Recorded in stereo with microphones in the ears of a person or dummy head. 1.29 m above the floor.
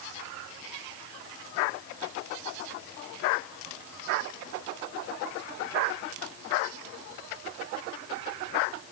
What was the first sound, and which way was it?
Only background noise.